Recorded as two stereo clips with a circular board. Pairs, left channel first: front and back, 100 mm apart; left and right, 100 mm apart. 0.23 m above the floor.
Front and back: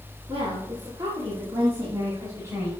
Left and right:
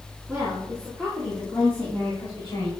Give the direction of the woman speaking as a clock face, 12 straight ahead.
5 o'clock.